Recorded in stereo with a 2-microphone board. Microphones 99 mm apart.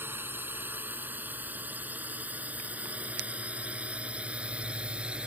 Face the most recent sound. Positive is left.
turn(degrees=-10)  # may be behind; listen again after turning